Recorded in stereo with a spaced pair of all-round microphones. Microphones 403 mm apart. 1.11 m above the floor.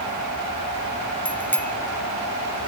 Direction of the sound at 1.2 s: 5° left (ahead or behind).